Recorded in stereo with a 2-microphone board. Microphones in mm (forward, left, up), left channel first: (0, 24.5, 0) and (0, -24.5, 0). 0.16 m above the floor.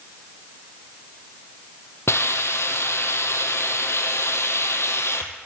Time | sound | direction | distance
2.1 | a hiss | 70° left (ahead or behind) | 0.7 m